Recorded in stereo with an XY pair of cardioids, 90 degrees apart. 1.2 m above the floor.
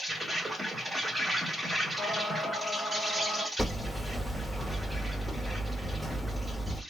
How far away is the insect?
About 1.8 m.